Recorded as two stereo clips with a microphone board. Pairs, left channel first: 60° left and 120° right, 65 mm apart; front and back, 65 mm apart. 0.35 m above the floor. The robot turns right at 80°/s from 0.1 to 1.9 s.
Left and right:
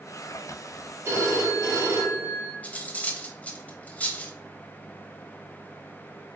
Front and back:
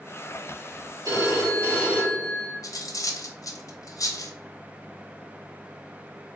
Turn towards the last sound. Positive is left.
turn(degrees=-5)